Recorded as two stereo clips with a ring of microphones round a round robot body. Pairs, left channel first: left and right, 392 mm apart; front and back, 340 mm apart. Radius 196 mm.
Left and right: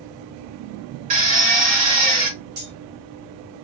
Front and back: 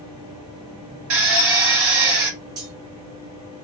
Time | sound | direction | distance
1.1 | a drill | 160° right | 1.7 m
2.6 | cutlery clinking | 155° right | 1.6 m